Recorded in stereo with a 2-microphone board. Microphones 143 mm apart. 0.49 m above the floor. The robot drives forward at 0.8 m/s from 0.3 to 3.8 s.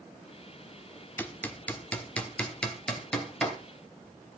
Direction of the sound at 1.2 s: 15° left (ahead or behind).